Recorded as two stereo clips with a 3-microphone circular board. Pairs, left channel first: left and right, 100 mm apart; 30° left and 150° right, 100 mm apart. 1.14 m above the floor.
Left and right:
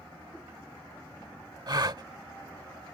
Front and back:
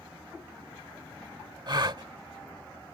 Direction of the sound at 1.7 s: 125° right.